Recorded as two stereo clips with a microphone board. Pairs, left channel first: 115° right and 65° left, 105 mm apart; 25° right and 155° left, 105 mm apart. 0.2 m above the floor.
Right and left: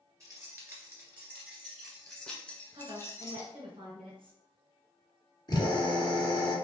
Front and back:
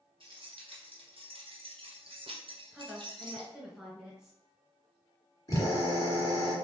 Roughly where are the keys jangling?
Behind left.